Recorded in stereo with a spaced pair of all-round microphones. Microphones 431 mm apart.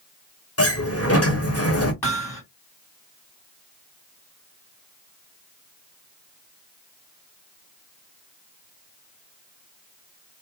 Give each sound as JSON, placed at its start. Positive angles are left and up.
{"t": 0.6, "sound": "a sliding door", "side_deg": 30, "distance_m": 1.0}
{"t": 2.0, "sound": "hammering", "side_deg": 55, "distance_m": 1.8}